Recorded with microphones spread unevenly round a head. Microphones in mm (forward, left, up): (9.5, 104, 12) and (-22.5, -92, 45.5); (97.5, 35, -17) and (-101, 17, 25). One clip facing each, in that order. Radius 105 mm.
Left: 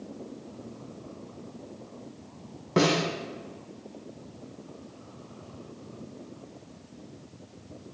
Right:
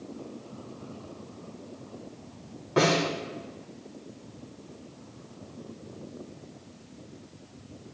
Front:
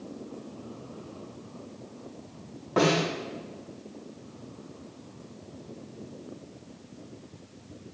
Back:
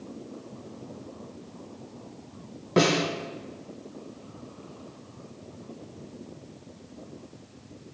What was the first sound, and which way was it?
A snare drum, 130° left.